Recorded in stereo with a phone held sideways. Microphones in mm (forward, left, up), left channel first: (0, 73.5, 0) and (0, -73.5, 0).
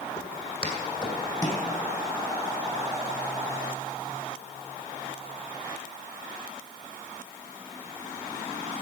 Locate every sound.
0.2 s footsteps: 45° left (ahead or behind), 2.5 m; by 1.6 s 20° left (ahead or behind), 2 m